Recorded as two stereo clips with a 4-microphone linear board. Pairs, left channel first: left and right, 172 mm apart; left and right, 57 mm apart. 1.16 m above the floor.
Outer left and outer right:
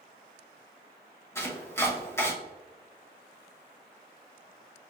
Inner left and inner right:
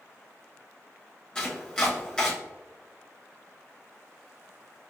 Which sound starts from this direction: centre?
Chopping, at 1.4 s.